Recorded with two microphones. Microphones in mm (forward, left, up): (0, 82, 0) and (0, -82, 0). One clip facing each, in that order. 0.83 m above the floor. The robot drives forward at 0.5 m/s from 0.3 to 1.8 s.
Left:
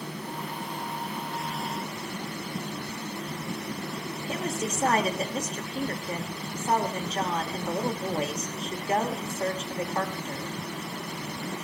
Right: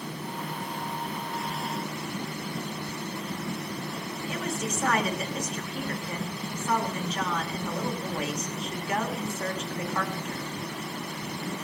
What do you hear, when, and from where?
4.3 s a woman speaking: 35° left (ahead or behind), 3 m